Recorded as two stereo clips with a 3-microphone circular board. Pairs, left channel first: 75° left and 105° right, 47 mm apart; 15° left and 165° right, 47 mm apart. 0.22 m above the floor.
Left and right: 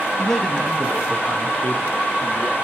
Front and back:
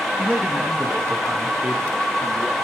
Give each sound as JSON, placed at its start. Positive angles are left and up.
{"t": 0.2, "sound": "a man speaking", "azimuth_deg": 160, "distance_m": 1.7}